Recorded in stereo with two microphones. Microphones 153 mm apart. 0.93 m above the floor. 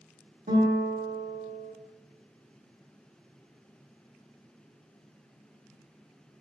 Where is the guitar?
70° right (ahead or behind), 1.4 m.